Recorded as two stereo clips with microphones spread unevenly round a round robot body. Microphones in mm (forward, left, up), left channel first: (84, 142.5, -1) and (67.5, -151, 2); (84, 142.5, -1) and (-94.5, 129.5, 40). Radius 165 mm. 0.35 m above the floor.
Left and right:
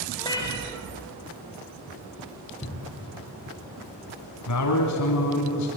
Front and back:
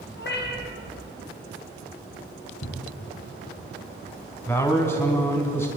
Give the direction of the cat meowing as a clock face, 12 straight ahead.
12 o'clock.